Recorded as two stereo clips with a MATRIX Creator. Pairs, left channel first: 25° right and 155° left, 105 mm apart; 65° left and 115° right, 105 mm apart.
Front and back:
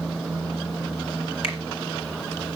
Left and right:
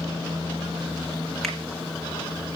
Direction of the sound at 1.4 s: 20° right.